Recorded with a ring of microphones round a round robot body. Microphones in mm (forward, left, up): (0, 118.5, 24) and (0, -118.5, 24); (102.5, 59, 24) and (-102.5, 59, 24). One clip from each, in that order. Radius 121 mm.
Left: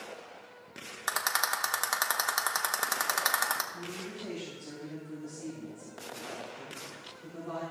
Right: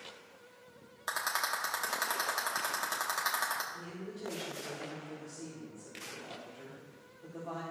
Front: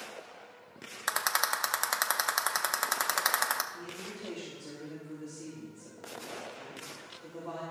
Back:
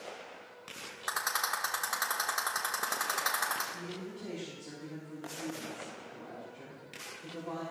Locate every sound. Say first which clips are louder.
1.1 s a rattle: left 4 dB, front 3 dB; 25° left, 0.9 m
3.7 s a woman speaking: left 4 dB, even; 10° right, 3.5 m